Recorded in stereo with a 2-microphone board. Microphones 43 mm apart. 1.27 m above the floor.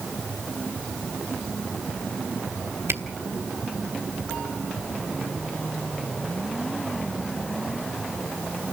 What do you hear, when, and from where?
2.9 s a camera shutter: 80° right, 2 m